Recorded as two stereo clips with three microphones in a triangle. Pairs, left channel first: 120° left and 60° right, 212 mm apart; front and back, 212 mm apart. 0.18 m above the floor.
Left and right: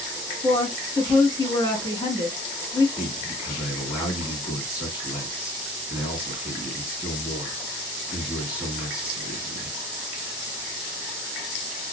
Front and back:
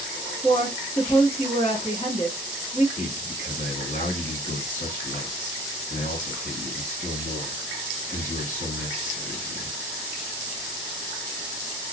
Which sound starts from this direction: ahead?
A man speaking, at 3.0 s.